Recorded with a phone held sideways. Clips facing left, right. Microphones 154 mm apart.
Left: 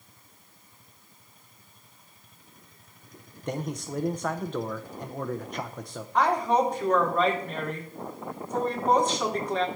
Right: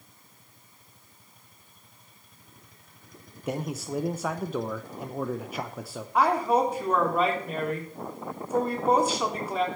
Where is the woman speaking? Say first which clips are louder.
Even; 10° right (ahead or behind), 3.5 m.